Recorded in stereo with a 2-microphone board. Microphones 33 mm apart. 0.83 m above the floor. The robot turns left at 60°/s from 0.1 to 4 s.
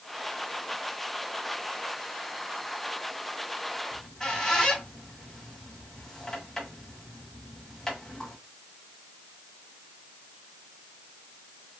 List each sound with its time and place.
3.9 s a squeak: 20° left (ahead or behind), 1.8 m; by 8.4 s 15° left (ahead or behind), 1.8 m